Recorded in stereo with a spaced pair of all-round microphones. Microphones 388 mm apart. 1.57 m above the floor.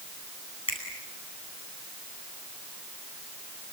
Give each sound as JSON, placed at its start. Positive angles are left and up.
{"t": 0.7, "sound": "a finger snap", "side_deg": 35, "distance_m": 10.0}